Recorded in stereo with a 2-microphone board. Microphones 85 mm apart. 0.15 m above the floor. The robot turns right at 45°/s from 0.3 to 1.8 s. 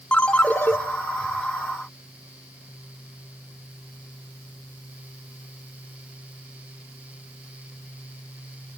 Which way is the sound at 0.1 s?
15° left (ahead or behind).